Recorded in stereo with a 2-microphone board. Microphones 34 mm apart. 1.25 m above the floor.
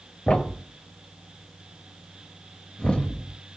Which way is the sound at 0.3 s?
35° left (ahead or behind).